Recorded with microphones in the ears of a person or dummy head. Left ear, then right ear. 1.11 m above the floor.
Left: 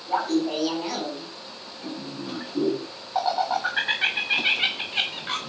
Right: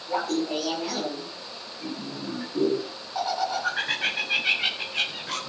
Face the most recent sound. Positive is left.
turn(degrees=40)  # may be behind; listen again after turning